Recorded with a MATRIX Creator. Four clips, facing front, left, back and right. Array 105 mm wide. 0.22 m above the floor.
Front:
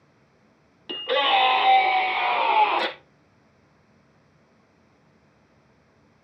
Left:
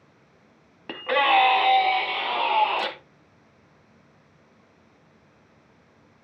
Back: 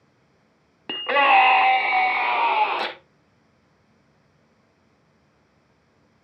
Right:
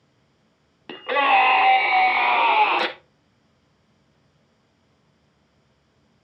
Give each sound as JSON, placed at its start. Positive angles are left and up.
{"t": 0.9, "sound": "a scream", "azimuth_deg": 170, "distance_m": 1.2}